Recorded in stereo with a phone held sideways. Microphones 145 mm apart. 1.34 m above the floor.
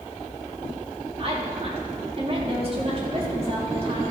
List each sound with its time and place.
1.2 s a woman speaking: 40° right (ahead or behind), 3.5 m